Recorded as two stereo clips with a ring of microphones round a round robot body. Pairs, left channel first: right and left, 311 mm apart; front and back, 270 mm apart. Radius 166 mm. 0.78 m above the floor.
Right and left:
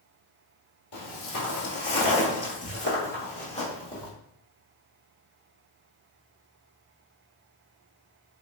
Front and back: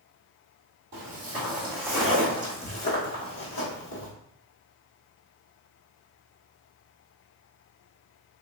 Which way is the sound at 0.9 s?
120° right.